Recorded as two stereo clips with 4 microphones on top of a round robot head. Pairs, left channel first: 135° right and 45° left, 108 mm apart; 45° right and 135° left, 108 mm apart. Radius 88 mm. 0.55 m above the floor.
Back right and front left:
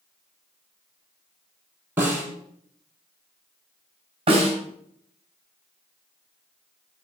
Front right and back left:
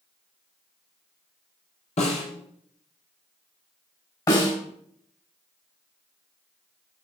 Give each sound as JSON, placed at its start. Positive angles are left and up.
{"t": 2.0, "sound": "a snare drum", "azimuth_deg": -25, "distance_m": 6.0}
{"t": 4.3, "sound": "a snare drum", "azimuth_deg": 10, "distance_m": 4.0}